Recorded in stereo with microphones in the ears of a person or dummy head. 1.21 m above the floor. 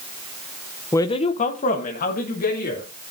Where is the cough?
No cough in this recording.